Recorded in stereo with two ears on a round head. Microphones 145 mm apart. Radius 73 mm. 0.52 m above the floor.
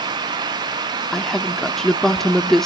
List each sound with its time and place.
1.1 s a woman speaking: 5° left (ahead or behind), 0.7 m